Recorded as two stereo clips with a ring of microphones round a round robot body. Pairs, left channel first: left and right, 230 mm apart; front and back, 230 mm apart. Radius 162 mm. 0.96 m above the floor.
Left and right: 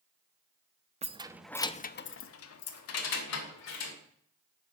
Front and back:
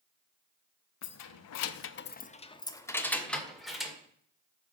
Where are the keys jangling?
25° right, 0.8 m; by 4.0 s 90° left, 2 m.